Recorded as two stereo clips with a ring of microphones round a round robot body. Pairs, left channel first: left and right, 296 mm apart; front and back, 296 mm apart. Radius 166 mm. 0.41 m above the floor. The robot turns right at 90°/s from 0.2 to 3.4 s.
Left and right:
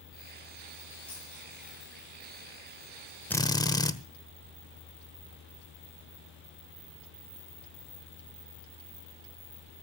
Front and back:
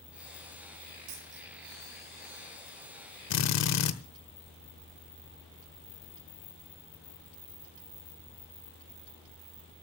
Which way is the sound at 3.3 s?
5° left.